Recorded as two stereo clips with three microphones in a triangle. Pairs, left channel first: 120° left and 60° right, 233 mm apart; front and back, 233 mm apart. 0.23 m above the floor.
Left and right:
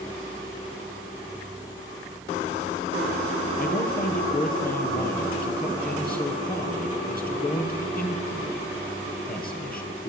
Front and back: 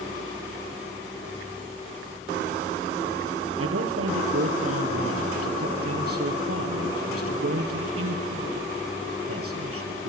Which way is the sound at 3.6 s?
170° left.